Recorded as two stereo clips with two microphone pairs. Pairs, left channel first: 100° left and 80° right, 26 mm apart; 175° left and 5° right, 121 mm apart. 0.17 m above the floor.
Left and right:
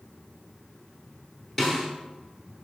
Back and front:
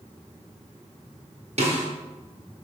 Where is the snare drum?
20° left, 1.2 m.